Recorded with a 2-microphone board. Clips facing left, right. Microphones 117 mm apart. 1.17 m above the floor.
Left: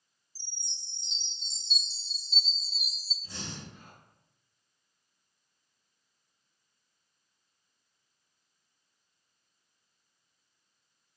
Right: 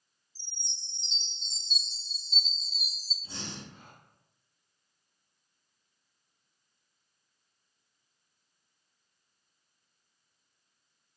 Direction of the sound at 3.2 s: 25° right (ahead or behind).